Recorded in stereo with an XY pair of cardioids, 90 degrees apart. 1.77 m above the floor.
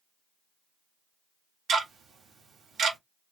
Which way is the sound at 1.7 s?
70° right.